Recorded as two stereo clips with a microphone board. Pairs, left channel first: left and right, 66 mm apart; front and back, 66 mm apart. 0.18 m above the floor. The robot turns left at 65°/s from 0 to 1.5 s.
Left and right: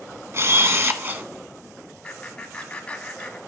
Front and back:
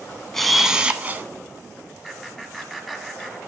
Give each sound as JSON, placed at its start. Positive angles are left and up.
{"t": 0.3, "sound": "a camera shutter", "azimuth_deg": -80, "distance_m": 0.6}
{"t": 2.0, "sound": "laughter", "azimuth_deg": 85, "distance_m": 1.3}